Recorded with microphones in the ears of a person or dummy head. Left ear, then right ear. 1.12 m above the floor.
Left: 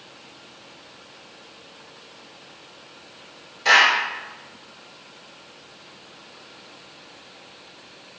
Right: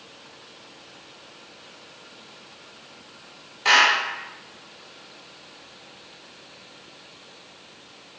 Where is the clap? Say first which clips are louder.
Left 1 dB; 35° right (ahead or behind), 2.5 m.